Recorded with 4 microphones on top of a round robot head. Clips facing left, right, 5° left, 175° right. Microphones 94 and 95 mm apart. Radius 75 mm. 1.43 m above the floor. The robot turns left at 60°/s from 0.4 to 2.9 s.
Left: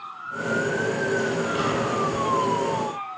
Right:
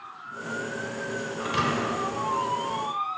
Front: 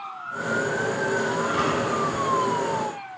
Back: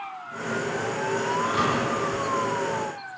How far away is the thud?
About 3 m.